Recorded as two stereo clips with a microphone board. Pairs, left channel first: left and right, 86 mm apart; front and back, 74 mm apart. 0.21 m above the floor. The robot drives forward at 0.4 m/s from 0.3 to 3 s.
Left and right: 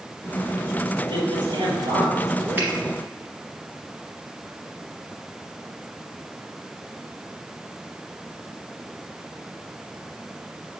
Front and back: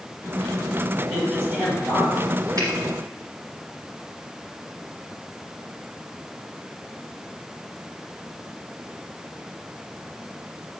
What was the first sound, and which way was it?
A man speaking, 105° right.